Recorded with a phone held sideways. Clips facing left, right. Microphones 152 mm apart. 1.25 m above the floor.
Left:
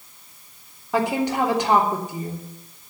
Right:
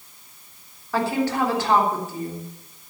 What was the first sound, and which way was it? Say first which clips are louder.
A woman speaking: left 1 dB; 20° left (ahead or behind).